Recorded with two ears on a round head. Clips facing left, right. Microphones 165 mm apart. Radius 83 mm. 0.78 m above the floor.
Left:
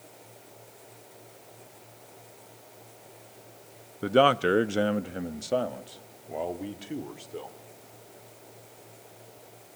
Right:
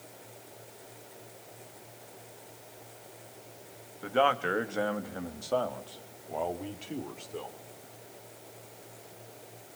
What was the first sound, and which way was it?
A man speaking, 50° left (ahead or behind).